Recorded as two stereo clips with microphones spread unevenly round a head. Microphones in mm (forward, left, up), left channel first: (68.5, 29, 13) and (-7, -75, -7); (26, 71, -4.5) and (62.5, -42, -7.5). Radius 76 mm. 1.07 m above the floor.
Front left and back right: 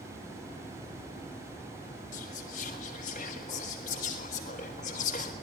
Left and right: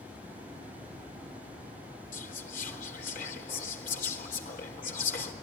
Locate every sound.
2.1 s whispering: 100° left, 4 m